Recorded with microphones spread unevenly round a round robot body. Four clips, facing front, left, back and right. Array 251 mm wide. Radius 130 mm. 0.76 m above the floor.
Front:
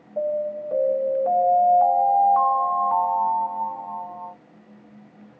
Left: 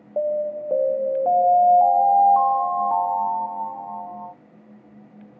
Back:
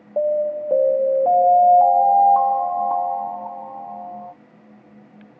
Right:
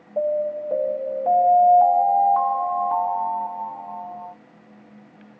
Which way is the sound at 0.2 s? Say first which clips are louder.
Right 1 dB, back 5 dB; 155° left.